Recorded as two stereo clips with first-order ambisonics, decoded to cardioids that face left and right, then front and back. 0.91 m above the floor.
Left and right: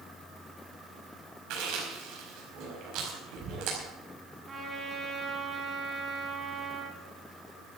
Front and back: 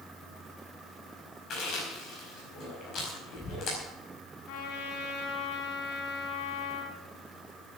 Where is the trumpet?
15° right, 3 m.